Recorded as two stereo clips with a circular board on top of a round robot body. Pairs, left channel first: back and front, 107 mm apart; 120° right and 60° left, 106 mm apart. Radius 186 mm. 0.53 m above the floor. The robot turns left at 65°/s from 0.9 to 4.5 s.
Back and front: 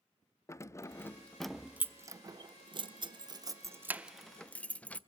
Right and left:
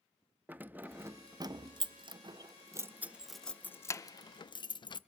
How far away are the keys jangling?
About 0.5 m.